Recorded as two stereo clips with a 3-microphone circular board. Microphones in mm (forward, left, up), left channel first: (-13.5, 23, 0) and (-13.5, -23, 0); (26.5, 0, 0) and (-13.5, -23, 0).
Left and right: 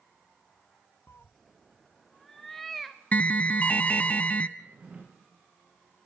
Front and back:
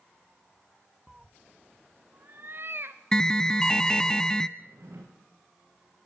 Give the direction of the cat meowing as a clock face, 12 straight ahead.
8 o'clock.